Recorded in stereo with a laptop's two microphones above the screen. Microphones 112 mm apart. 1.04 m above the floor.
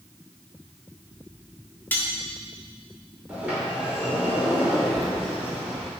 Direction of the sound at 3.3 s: 10° right (ahead or behind).